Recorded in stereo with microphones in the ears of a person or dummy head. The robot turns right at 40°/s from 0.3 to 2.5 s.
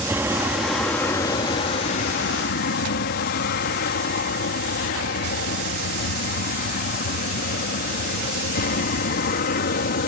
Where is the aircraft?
15° right (ahead or behind); by 10.1 s 50° left (ahead or behind).